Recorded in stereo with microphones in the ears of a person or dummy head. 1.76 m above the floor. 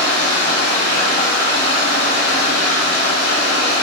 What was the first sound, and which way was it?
Running water, 20° left (ahead or behind).